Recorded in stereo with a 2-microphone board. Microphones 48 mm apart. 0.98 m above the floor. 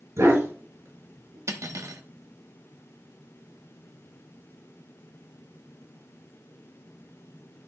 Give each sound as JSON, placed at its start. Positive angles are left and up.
{"t": 0.2, "sound": "a dog barking", "side_deg": -85, "distance_m": 5.0}
{"t": 1.5, "sound": "cutlery clinking", "side_deg": -85, "distance_m": 1.0}